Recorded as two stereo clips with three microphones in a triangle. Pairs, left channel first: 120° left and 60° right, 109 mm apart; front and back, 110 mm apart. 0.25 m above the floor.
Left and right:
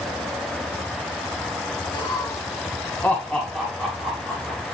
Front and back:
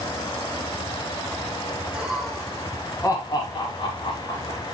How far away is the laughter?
About 1.7 m.